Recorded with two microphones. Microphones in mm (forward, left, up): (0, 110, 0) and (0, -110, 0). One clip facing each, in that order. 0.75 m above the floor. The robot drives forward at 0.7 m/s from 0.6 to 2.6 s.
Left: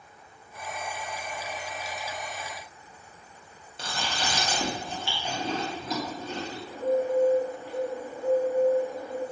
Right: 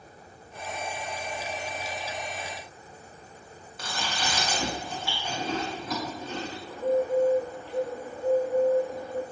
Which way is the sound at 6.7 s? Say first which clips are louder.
Even; 10° left (ahead or behind).